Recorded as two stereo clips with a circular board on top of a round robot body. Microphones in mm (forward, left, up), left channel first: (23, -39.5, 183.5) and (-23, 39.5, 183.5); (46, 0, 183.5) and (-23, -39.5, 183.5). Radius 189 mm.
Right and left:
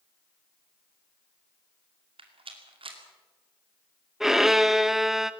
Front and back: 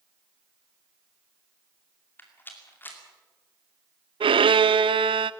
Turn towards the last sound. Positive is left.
turn(degrees=-155)